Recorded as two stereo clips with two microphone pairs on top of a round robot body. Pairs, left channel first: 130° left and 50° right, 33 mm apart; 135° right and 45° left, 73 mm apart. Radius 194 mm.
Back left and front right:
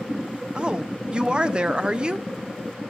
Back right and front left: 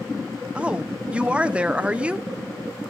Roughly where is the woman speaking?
Ahead.